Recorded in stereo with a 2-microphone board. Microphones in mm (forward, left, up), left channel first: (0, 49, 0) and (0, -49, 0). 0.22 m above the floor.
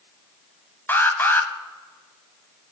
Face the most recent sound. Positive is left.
turn(degrees=25)  # may be behind; listen again after turning